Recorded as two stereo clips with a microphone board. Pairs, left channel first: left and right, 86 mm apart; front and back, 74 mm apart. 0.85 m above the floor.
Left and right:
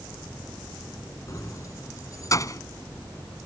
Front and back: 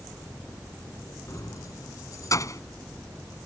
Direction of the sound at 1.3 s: 40° left.